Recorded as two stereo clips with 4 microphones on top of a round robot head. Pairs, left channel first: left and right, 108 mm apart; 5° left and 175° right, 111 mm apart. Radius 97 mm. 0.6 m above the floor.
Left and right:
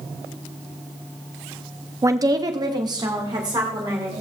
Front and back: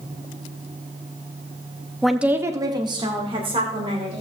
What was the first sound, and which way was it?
A woman speaking, 80° right.